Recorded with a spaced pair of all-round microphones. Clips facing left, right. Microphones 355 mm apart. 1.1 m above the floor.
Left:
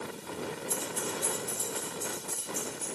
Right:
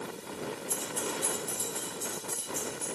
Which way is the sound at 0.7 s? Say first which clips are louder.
Even; 50° left (ahead or behind).